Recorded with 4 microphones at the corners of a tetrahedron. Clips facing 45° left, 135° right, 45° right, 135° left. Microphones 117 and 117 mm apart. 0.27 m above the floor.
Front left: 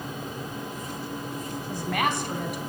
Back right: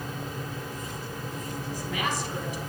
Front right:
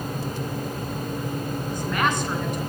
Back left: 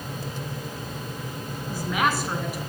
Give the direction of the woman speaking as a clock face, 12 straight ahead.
10 o'clock.